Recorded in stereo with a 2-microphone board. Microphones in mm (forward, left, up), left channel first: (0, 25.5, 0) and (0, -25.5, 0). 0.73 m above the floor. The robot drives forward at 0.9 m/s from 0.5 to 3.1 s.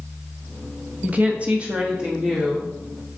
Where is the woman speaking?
30° right (ahead or behind), 0.8 m; by 2.7 s 10° right (ahead or behind), 1.8 m.